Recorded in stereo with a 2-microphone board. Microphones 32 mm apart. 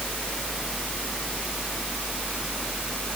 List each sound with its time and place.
Only background noise.